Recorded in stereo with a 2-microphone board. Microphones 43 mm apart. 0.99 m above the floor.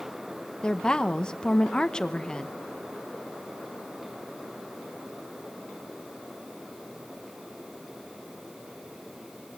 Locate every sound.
0.6 s a woman speaking: 20° left (ahead or behind), 0.9 m